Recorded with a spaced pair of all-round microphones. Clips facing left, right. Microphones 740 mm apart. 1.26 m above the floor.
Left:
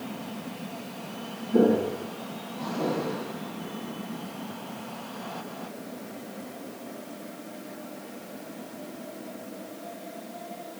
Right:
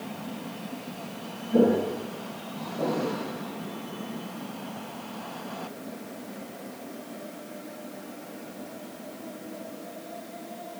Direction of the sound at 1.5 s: 15° right (ahead or behind).